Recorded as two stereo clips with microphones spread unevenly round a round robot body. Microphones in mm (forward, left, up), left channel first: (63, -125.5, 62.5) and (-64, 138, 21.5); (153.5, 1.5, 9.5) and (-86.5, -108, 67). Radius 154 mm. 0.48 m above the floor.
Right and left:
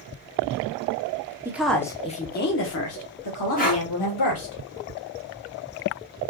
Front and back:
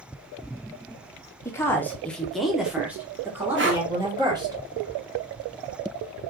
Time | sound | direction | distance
1.4 | a woman speaking | 60° left | 1.1 m
3.6 | breathing | 120° right | 1.4 m